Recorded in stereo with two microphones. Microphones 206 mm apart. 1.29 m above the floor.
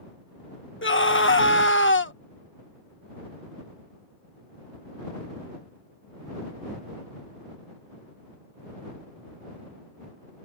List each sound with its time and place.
0.8 s a scream: 70° left (ahead or behind)